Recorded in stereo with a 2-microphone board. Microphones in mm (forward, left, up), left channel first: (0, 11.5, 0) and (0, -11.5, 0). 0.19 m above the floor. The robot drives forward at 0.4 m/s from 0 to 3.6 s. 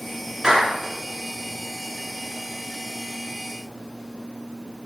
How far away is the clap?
About 2.5 m.